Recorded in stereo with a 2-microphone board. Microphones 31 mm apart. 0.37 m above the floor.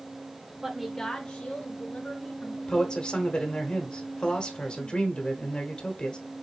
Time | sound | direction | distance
0.6 | a woman speaking | 20° right (ahead or behind) | 0.9 m
2.7 | a man speaking | 35° left (ahead or behind) | 1.3 m